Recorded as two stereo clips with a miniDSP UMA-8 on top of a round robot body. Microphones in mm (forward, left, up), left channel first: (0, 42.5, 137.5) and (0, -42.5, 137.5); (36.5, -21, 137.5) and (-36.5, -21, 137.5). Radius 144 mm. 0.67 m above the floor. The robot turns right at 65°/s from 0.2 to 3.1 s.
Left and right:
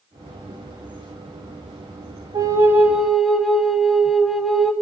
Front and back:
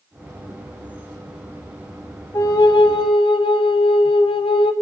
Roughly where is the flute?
Ahead right.